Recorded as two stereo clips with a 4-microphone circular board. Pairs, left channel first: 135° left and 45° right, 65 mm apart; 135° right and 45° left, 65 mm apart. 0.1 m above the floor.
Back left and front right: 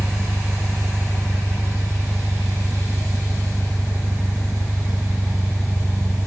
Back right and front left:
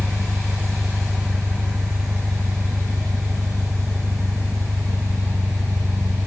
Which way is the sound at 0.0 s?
15° left.